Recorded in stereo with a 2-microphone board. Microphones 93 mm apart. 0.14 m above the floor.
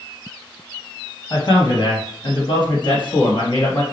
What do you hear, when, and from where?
1.3 s a man speaking: 50° left (ahead or behind), 2.5 m; by 3.8 s 55° left (ahead or behind), 2 m